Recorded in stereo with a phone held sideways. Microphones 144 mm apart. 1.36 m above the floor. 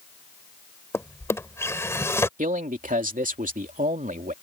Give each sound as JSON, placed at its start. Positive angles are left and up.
{"t": 0.9, "sound": "a drawer", "side_deg": 20}
{"t": 2.4, "sound": "a man speaking", "side_deg": -70}